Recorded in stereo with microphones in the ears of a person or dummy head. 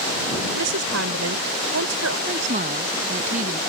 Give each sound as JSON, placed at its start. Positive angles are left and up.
{"t": 0.5, "sound": "a woman speaking", "side_deg": -75}
{"t": 2.3, "sound": "a woman speaking", "side_deg": -45}